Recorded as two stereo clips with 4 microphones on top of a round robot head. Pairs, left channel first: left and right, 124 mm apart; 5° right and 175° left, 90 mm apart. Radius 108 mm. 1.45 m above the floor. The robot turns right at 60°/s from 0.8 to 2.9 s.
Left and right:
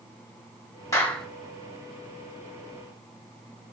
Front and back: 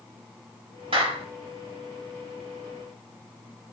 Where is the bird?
No bird in this recording.